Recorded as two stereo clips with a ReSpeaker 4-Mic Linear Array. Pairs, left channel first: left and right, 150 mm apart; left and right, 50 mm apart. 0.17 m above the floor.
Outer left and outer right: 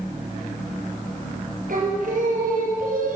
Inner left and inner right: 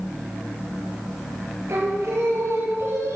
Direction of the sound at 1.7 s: 65° right (ahead or behind).